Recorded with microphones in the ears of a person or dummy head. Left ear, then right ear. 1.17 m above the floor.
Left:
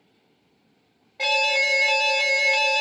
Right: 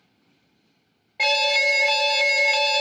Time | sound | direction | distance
1.2 | an alarm | 15° right (ahead or behind) | 0.6 m